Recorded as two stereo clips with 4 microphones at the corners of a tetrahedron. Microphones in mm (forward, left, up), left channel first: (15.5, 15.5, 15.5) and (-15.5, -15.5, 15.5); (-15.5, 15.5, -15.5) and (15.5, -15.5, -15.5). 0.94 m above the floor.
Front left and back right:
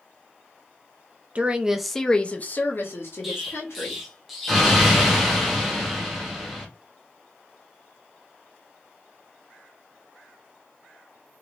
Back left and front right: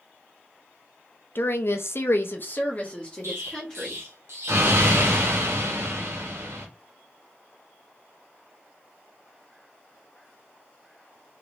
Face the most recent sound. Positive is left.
turn(degrees=-50)